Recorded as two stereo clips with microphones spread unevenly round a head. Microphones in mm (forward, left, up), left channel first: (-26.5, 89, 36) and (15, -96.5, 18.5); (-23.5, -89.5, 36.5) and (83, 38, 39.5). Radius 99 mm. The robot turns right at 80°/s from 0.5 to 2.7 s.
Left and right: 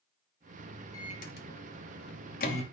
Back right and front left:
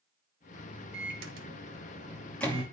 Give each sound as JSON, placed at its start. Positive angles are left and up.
{"t": 0.9, "sound": "a microwave", "azimuth_deg": 30, "distance_m": 2.5}